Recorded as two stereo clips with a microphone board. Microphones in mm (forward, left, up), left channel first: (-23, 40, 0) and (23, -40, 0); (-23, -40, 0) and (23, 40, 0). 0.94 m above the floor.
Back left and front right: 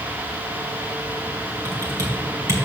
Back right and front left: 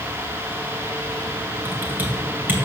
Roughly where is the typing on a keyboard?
Ahead.